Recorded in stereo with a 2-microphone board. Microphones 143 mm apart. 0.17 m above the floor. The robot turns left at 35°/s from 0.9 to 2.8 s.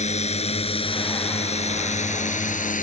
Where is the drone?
50° left (ahead or behind); by 2.8 s 65° left (ahead or behind).